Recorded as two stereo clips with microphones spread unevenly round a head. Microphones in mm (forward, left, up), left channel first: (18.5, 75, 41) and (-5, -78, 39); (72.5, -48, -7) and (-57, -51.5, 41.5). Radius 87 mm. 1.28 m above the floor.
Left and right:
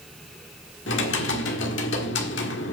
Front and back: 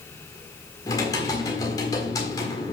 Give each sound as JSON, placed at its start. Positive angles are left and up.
{"t": 0.9, "sound": "typing on a keyboard", "azimuth_deg": 80, "distance_m": 1.5}